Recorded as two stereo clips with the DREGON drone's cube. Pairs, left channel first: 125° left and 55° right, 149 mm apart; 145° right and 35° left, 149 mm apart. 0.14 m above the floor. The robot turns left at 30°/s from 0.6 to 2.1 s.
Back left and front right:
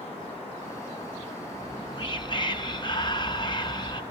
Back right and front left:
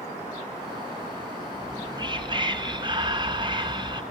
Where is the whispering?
95° left, 1.6 m; by 4.0 s 80° left, 1.6 m.